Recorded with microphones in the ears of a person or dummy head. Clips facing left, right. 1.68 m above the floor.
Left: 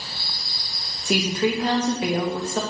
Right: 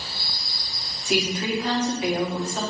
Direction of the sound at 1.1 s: 35° left (ahead or behind).